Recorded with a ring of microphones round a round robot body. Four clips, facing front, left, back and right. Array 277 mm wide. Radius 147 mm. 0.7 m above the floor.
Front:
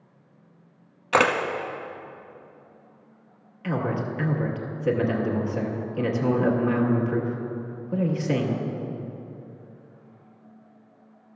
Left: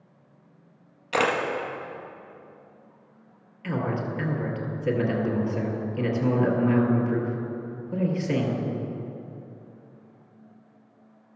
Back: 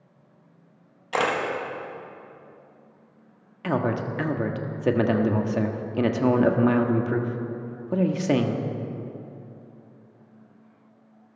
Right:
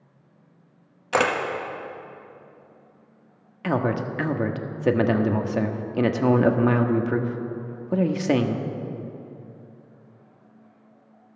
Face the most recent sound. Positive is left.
turn(degrees=-125)